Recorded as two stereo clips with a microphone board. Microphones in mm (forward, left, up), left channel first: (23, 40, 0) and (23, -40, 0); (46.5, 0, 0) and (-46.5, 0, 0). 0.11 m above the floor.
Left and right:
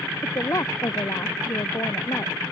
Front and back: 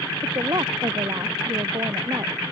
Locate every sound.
0.2 s a woman speaking: 135° left